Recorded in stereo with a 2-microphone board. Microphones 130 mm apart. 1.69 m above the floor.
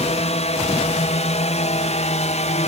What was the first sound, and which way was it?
A drone, 55° left (ahead or behind).